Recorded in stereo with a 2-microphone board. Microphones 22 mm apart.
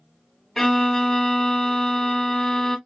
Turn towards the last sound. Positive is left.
turn(degrees=20)  # may be behind; listen again after turning